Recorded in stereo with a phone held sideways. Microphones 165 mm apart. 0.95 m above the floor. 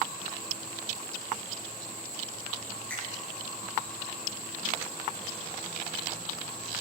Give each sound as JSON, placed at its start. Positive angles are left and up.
{"t": 2.9, "sound": "a finger snap", "side_deg": 10, "distance_m": 5.0}